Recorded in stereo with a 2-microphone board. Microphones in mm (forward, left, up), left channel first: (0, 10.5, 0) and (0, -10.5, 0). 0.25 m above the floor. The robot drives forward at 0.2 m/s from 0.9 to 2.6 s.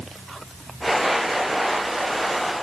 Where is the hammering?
No hammering in this recording.